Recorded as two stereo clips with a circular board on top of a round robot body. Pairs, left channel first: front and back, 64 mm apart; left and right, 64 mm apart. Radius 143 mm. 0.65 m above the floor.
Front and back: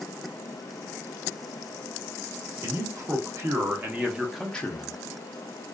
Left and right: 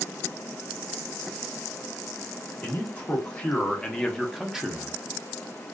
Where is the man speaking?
155° left, 1.3 m; by 5.0 s 25° right, 0.8 m.